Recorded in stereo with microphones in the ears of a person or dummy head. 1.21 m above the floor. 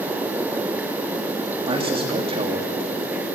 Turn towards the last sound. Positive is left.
turn(degrees=-25)  # may be behind; listen again after turning